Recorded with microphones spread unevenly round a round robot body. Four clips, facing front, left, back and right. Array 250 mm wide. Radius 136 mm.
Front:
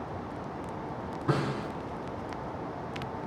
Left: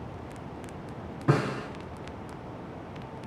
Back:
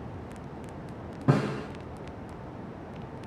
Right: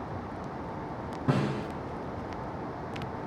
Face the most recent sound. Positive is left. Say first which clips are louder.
# left 2 dB, back 4 dB
turn(degrees=-170)